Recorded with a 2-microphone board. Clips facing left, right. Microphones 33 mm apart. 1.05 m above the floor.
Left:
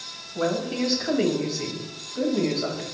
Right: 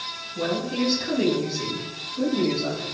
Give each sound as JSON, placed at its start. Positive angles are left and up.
{"t": 0.3, "sound": "a woman speaking", "side_deg": 50, "distance_m": 6.5}